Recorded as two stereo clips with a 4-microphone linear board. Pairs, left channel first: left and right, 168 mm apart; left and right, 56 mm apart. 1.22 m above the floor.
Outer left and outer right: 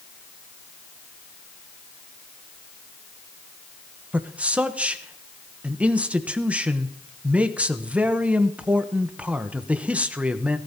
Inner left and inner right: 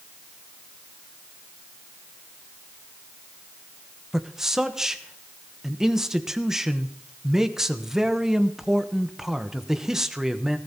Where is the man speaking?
5° right (ahead or behind), 0.9 m.